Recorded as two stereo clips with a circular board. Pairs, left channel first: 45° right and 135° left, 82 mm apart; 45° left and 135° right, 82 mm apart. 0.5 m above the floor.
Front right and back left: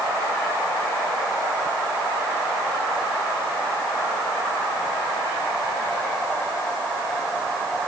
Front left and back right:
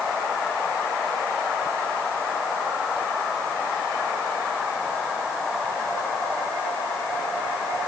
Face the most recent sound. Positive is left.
No sound to turn to.